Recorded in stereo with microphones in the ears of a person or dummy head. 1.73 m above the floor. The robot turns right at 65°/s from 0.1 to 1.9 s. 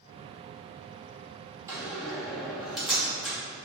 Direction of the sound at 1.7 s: 15° right (ahead or behind).